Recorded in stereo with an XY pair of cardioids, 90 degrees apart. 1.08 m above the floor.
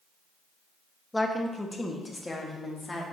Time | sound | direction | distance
1.1 | a woman speaking | 15° left | 1.1 m